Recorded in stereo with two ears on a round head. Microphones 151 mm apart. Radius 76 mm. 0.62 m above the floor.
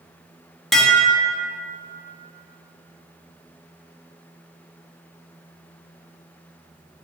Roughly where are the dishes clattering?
Centre.